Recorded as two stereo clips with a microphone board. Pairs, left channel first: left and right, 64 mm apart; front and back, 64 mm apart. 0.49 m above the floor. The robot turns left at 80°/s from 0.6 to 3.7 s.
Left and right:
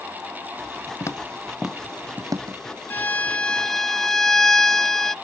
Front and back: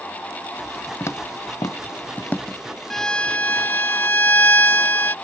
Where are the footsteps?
50° left; by 2.6 s 85° right.